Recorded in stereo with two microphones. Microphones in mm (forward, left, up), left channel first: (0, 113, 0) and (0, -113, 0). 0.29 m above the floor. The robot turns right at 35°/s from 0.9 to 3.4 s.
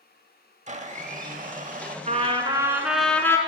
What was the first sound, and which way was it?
A blender, 115° right.